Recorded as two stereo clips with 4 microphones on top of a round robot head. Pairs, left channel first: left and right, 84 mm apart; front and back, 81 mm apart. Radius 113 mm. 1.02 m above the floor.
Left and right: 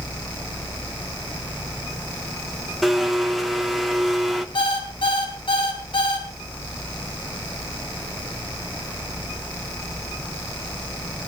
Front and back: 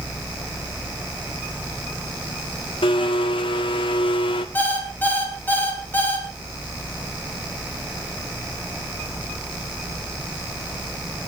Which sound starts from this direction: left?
An alarm clock, at 4.5 s.